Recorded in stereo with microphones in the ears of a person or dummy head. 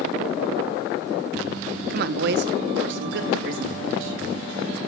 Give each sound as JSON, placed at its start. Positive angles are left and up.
{"t": 1.9, "sound": "a woman speaking", "side_deg": -55, "distance_m": 0.8}